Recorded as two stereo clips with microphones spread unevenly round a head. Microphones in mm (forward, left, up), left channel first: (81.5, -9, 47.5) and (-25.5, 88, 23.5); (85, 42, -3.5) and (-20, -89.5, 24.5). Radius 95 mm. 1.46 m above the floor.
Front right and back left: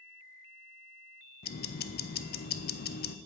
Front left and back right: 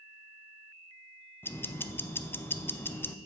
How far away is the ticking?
About 0.6 m.